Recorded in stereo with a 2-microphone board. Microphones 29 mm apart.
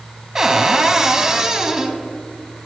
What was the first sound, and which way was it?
A cupboard door, 15° right (ahead or behind).